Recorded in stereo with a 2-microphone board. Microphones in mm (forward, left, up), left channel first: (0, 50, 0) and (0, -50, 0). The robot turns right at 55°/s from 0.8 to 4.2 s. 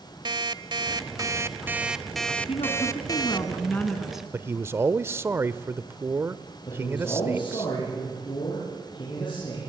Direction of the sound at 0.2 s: 75° right.